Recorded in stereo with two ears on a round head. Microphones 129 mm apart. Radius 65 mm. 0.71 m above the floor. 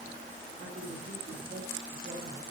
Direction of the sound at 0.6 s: 50° right (ahead or behind).